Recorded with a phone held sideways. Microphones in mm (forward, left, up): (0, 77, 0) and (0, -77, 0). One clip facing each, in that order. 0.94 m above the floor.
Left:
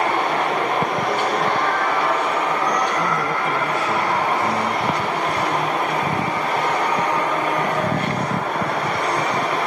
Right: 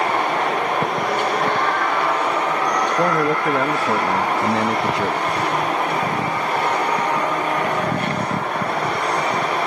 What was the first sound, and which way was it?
A man speaking, 75° right (ahead or behind).